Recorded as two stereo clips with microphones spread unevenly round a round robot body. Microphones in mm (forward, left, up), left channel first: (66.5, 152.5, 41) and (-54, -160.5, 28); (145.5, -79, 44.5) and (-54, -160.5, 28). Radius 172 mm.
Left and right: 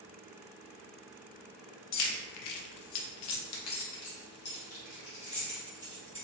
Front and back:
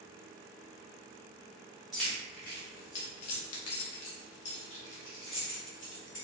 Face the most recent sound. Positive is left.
turn(degrees=-5)